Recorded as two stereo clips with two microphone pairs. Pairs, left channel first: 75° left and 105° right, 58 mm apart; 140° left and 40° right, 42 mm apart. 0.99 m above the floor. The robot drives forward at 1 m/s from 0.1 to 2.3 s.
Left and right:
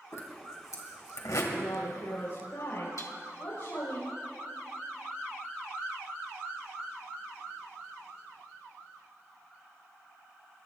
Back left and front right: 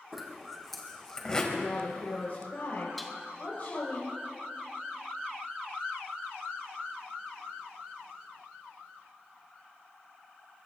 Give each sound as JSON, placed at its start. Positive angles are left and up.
{"t": 0.1, "sound": "a zipper", "azimuth_deg": 45, "distance_m": 3.0}
{"t": 1.5, "sound": "a woman speaking", "azimuth_deg": 90, "distance_m": 4.5}
{"t": 3.0, "sound": "dishes clattering", "azimuth_deg": 55, "distance_m": 1.5}